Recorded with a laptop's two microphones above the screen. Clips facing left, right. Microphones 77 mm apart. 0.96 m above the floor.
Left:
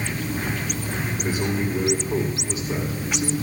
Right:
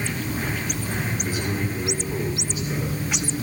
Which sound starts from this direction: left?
A man speaking, at 1.2 s.